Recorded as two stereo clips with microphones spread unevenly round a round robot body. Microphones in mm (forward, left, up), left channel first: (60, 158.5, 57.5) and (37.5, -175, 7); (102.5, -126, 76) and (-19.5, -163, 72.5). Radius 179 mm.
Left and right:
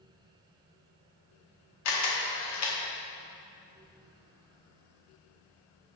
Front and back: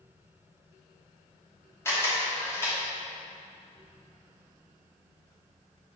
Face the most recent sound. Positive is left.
turn(degrees=75)